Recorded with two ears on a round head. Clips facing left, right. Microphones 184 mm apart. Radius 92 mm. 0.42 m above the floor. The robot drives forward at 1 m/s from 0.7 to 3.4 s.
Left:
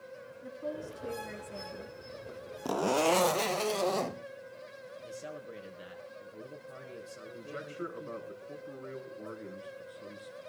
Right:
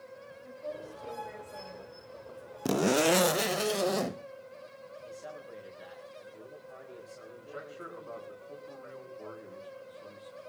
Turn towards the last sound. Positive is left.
turn(degrees=35)  # may be behind; listen again after turning